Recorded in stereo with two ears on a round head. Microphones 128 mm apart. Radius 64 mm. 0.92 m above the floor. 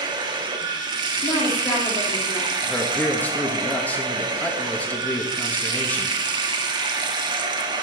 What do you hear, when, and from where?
0.0 s running water: 30° right (ahead or behind), 1.1 m
1.2 s a woman speaking: 40° left (ahead or behind), 2 m
2.6 s a man speaking: 10° left (ahead or behind), 1.3 m